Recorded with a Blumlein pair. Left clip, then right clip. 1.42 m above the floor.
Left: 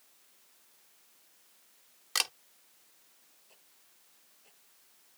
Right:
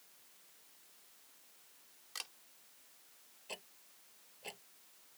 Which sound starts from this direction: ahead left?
A camera shutter, at 2.1 s.